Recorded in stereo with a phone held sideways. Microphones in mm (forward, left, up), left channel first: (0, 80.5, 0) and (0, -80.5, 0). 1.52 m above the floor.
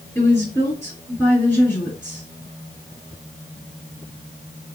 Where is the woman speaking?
15° left (ahead or behind), 3 m.